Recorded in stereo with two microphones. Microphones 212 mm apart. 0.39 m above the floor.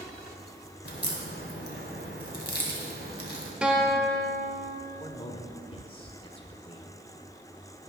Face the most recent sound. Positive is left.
turn(degrees=25)  # may be behind; listen again after turning